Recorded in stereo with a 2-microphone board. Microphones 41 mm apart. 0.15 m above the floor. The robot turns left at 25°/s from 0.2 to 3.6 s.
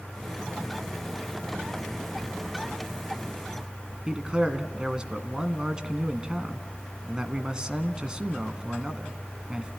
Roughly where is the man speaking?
Right.